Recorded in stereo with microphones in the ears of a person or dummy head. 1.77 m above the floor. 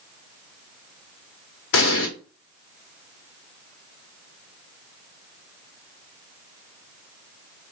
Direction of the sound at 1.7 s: 65° left (ahead or behind).